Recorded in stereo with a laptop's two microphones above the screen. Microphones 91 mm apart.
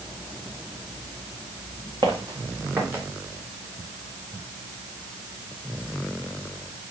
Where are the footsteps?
50° right (ahead or behind), 3 m; by 3.0 s 30° right (ahead or behind), 3.5 m.